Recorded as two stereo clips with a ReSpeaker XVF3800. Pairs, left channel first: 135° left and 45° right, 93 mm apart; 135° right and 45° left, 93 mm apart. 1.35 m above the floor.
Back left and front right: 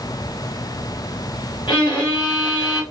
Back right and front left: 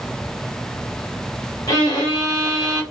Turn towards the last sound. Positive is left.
turn(degrees=175)